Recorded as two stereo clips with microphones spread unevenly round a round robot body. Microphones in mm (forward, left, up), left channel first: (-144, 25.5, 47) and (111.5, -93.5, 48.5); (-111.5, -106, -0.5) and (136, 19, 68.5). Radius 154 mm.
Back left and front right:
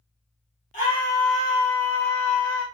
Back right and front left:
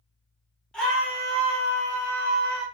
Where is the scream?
160° left, 1.3 m; by 2.7 s 20° right, 1.7 m.